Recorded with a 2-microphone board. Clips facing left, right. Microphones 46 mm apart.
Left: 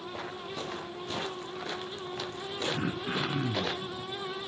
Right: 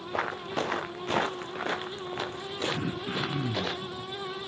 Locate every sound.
0.1 s footsteps: 70° right (ahead or behind), 1.6 m; by 3.8 s 10° right (ahead or behind), 2 m
2.8 s throat clearing: 30° left (ahead or behind), 2 m